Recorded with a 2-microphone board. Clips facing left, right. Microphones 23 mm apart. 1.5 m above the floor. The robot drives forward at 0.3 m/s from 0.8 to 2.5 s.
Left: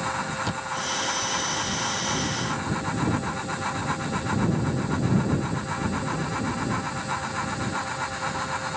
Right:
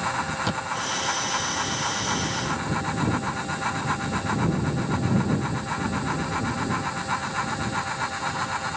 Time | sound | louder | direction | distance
0.4 | a thud | right 1 dB | 15° right (ahead or behind) | ?